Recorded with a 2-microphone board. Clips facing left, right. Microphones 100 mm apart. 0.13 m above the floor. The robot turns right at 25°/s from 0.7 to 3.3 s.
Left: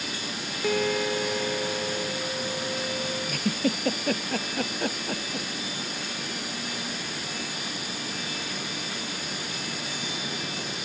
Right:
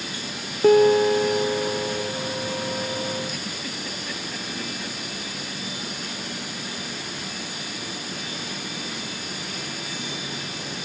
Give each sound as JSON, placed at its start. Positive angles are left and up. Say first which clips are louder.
{"t": 0.6, "sound": "a piano", "louder": "right 11 dB", "azimuth_deg": -55}
{"t": 3.3, "sound": "a giggle", "louder": "left 7 dB", "side_deg": 55}